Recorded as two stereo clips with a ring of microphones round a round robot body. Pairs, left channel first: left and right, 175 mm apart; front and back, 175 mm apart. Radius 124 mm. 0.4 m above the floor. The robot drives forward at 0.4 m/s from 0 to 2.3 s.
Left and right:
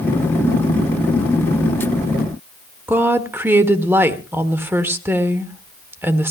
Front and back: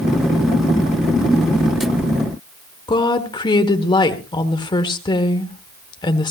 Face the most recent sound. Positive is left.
turn(degrees=-30)